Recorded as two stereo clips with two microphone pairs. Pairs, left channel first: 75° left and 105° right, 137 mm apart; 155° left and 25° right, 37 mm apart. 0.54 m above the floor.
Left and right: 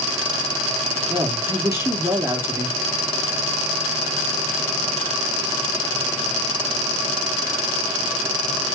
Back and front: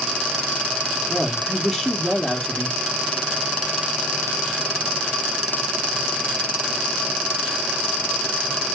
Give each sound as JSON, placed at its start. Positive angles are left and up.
{"t": 1.1, "sound": "a woman speaking", "azimuth_deg": -135, "distance_m": 0.7}